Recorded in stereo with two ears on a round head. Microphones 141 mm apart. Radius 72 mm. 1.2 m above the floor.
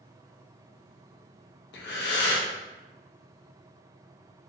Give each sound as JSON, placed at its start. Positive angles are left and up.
{"t": 1.7, "sound": "breathing", "side_deg": 80, "distance_m": 0.8}